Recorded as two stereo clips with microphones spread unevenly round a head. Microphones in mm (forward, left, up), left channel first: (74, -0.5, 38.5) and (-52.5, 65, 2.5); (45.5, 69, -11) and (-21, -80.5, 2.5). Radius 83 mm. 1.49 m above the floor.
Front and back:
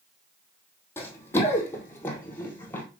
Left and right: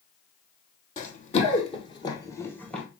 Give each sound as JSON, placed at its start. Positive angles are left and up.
{"t": 1.0, "sound": "running footsteps", "azimuth_deg": 30, "distance_m": 2.5}